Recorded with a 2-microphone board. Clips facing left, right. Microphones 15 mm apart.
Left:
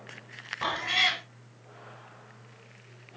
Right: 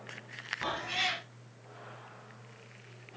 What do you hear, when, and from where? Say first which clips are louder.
0.6 s a cat meowing: left 7 dB; 55° left (ahead or behind), 0.8 m